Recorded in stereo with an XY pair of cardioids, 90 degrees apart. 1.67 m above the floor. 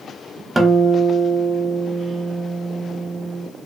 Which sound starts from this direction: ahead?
A guitar, at 0.6 s.